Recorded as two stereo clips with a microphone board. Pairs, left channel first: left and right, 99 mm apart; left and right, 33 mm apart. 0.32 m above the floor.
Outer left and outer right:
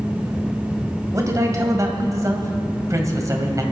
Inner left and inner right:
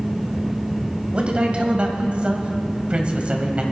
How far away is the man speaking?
About 2 m.